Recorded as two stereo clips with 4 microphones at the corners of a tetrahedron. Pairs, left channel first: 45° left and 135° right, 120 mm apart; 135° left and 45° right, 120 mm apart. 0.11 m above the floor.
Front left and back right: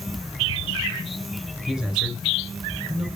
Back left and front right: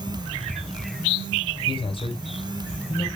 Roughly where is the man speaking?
Behind left.